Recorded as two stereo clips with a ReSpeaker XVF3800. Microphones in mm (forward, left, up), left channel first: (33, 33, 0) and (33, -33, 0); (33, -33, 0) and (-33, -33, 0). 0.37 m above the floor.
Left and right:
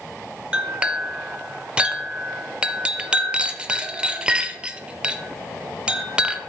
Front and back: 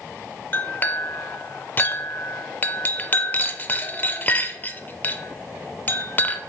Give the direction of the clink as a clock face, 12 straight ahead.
1 o'clock.